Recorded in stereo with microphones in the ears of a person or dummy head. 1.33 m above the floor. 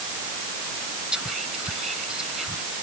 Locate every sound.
1.1 s whispering: 5° right (ahead or behind)